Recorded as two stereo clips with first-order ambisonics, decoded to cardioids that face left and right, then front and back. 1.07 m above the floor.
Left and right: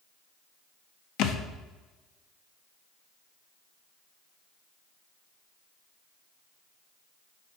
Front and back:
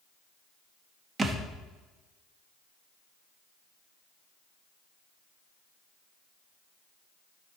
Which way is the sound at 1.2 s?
110° left.